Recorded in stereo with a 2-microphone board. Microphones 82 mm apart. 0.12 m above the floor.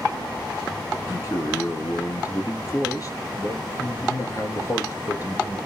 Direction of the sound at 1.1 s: 40° left (ahead or behind).